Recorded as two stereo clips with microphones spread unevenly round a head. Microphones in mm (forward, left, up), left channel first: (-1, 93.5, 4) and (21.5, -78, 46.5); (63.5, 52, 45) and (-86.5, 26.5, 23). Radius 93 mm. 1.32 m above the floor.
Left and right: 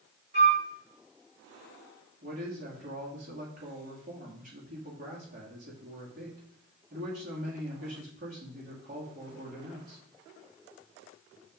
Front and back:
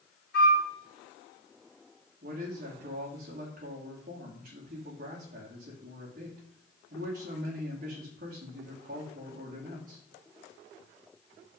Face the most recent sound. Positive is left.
turn(degrees=-125)